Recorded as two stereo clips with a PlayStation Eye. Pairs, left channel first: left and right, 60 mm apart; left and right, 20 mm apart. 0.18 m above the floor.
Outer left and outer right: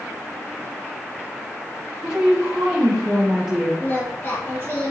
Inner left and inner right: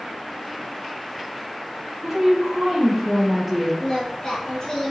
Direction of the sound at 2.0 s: 15° right (ahead or behind).